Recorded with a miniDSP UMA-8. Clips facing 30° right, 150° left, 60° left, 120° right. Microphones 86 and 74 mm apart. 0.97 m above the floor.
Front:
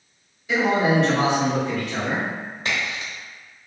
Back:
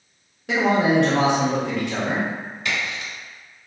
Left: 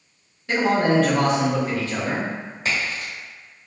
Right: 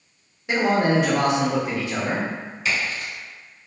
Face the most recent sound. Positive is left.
turn(degrees=15)